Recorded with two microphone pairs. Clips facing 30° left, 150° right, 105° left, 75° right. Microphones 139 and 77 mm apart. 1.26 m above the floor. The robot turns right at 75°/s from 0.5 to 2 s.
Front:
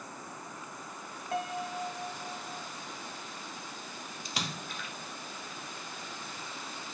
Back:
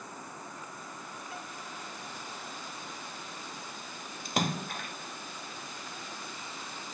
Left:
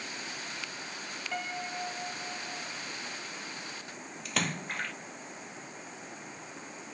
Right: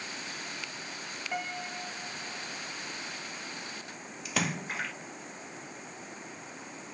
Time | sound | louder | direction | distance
1.3 | a piano | front 14 dB, even | straight ahead | ?
4.2 | a splash | back 9 dB, right 1 dB | 165° right | ?